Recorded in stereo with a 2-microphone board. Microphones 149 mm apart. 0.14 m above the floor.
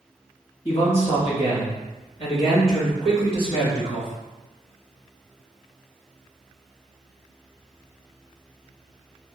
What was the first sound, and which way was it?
A man speaking, 45° left (ahead or behind).